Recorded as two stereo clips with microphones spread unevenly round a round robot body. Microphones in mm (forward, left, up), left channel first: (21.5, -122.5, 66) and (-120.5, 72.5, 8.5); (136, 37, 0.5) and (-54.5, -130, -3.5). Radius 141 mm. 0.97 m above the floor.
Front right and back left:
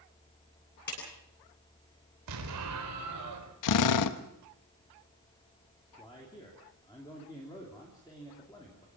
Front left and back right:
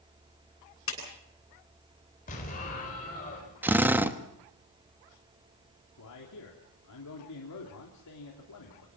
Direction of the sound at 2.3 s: 105° left.